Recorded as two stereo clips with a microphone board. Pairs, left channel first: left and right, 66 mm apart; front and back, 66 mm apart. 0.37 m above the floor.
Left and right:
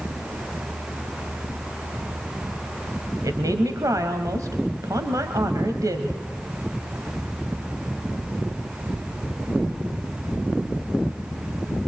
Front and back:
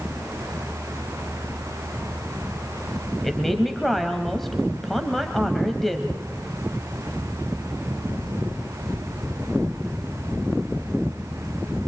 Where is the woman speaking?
90° right, 2.0 m.